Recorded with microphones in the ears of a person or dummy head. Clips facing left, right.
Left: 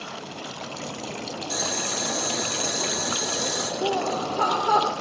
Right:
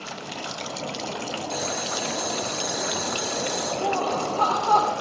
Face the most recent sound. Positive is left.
turn(degrees=25)  # may be behind; listen again after turning